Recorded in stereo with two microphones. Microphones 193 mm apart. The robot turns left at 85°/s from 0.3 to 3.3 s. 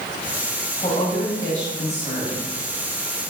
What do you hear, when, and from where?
0.8 s a woman speaking: 155° left, 4 m; by 2.4 s 20° left, 4 m